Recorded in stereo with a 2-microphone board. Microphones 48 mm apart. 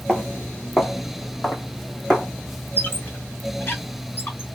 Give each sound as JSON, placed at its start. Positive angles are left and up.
{"t": 0.1, "sound": "footsteps", "side_deg": 20, "distance_m": 1.1}
{"t": 2.8, "sound": "a squeak", "side_deg": 45, "distance_m": 1.5}